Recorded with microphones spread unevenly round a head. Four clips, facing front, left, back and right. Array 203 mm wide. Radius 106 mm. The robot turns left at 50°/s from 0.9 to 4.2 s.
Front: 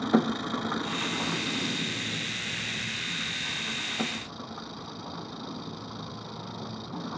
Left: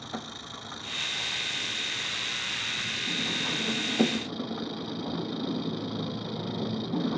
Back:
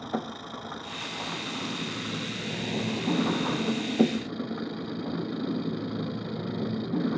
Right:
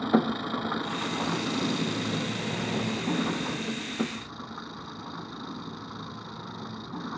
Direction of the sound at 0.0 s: 40° right.